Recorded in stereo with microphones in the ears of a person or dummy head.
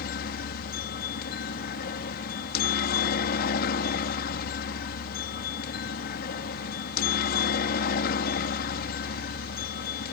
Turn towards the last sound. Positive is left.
turn(degrees=50)  # may be behind; listen again after turning